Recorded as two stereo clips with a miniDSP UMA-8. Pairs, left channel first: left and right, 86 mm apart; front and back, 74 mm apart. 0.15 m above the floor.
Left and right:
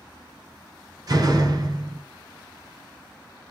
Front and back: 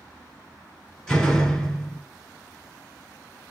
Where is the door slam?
85° right, 1.2 m.